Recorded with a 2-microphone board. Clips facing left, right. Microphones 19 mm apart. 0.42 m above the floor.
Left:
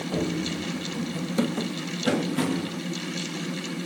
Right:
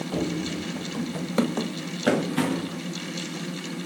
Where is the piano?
I don't hear a piano.